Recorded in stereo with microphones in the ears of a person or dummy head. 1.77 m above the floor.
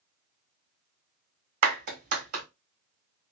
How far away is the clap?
About 1.5 m.